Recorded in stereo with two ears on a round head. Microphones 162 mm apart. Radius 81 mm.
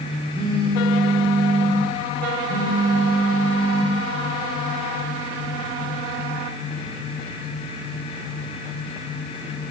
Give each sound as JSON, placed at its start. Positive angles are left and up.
{"t": 0.3, "sound": "a phone buzzing", "side_deg": -25, "distance_m": 1.2}